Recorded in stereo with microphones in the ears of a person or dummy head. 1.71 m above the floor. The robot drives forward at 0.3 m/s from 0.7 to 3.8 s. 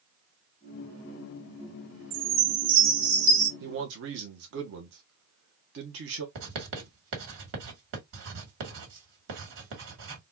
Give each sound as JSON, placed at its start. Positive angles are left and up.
{"t": 2.1, "sound": "a chime", "side_deg": -45, "distance_m": 2.0}
{"t": 3.6, "sound": "a man speaking", "side_deg": -60, "distance_m": 1.0}
{"t": 6.3, "sound": "writing", "side_deg": -65, "distance_m": 2.5}